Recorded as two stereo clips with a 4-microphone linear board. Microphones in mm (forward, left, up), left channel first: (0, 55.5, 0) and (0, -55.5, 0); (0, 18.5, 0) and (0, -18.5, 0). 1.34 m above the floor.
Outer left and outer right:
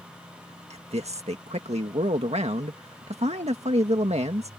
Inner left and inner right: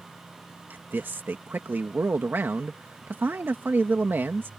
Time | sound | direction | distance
0.7 | a man speaking | 75° right (ahead or behind) | ?